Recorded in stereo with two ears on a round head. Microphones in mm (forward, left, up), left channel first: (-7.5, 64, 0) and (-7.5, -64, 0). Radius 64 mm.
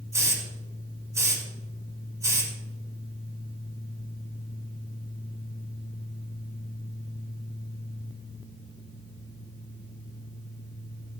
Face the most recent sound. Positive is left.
turn(degrees=-25)  # may be behind; listen again after turning